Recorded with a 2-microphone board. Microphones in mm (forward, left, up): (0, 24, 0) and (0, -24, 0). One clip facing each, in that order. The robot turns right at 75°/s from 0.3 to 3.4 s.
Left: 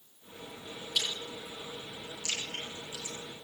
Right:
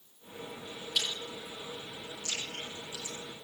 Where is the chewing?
10° right (ahead or behind), 9.5 m; by 3.1 s 25° left (ahead or behind), 9.5 m.